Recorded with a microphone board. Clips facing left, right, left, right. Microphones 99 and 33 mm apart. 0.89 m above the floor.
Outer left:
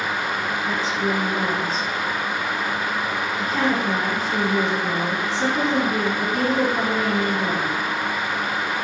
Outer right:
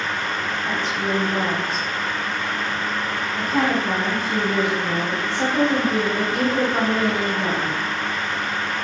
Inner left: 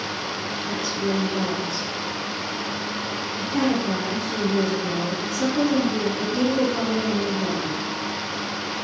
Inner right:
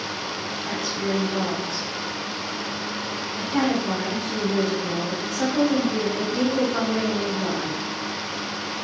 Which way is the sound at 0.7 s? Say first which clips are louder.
Outer left 1 dB, inner left 1 dB; 60° right (ahead or behind).